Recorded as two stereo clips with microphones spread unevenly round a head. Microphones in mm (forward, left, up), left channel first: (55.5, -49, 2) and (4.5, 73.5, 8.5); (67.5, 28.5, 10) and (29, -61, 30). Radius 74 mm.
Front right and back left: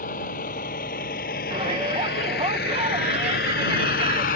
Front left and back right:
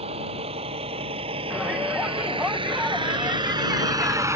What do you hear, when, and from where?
0.0 s a vehicle: 105° right; by 4.4 s 55° right
1.5 s a shout: 165° left